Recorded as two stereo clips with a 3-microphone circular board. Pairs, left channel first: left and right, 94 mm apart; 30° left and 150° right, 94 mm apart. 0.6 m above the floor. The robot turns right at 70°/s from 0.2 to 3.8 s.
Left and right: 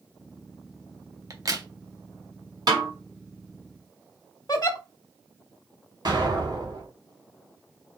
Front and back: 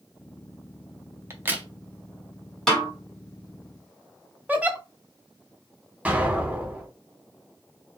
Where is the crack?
110° right, 0.6 m; by 1.7 s 80° right, 0.6 m.